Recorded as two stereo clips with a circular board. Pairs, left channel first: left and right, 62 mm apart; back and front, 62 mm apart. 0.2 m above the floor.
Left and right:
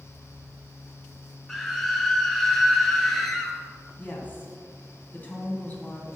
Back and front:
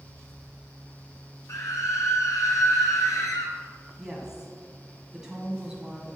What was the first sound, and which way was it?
A scream, 175° left.